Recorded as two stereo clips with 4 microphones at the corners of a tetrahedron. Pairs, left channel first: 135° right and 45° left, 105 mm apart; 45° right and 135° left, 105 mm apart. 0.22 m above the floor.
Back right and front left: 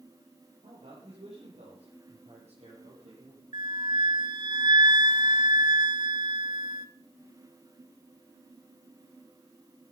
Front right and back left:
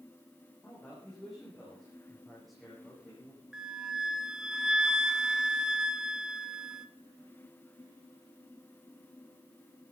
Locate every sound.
0.6 s a man speaking: 30° left, 8 m; by 3.4 s 50° left, 10.5 m
3.5 s a flute: 55° left, 0.7 m